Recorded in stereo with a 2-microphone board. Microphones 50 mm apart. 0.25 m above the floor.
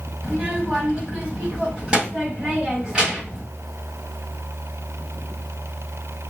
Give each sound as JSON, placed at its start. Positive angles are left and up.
{"t": 0.2, "sound": "a child speaking", "side_deg": -20, "distance_m": 1.3}